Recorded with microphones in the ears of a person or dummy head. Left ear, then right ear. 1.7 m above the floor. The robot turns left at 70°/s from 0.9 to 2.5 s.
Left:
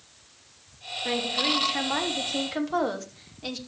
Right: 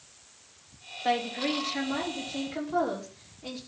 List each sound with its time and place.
1.0 s a woman speaking: 160° right, 3.5 m; by 3.6 s 95° left, 3.5 m